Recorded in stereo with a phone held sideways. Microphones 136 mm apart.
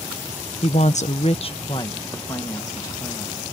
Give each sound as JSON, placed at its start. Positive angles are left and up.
{"t": 0.6, "sound": "a woman speaking", "side_deg": 50}